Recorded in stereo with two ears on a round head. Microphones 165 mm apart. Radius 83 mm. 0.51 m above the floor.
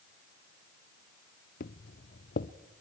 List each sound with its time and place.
1.6 s footsteps: 50° left (ahead or behind), 0.8 m